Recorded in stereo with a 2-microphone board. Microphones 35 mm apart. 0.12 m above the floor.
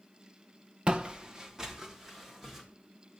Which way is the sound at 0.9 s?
30° right (ahead or behind).